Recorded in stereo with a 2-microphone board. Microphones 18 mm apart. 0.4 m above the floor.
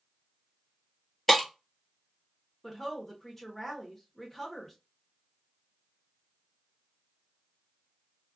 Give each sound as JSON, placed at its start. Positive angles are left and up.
{"t": 1.3, "sound": "breaking glass", "side_deg": 5, "distance_m": 1.0}
{"t": 2.6, "sound": "a woman speaking", "side_deg": 20, "distance_m": 0.8}